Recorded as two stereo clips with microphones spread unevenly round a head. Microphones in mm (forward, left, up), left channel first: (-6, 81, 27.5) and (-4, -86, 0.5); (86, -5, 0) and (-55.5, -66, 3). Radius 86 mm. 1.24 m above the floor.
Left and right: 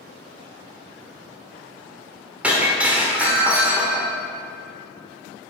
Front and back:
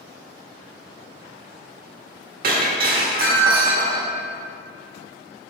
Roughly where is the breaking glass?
Behind.